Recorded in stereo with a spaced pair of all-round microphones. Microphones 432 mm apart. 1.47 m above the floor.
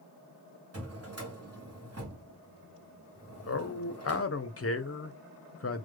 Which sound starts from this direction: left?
A man speaking, at 3.5 s.